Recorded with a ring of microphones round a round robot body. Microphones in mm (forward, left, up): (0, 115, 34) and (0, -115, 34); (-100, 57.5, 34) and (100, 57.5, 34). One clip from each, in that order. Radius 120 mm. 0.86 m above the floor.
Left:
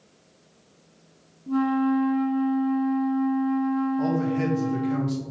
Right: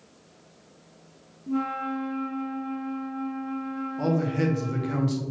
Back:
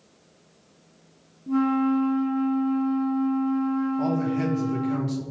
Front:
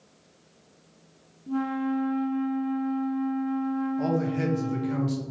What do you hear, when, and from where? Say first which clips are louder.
1.5 s a flute: left 5 dB, back 6 dB; 140° left, 1.5 m
4.0 s a man speaking: left 1 dB, back 1 dB; 75° right, 0.8 m